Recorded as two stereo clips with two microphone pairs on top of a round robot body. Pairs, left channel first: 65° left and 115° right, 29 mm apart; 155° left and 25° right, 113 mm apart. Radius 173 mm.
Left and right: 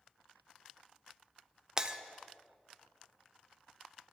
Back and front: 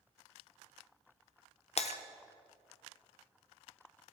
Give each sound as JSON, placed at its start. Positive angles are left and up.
{"t": 1.8, "sound": "breaking glass", "azimuth_deg": 175, "distance_m": 0.9}